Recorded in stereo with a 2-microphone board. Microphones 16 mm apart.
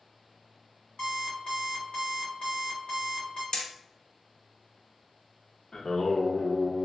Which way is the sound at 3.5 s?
50° left (ahead or behind).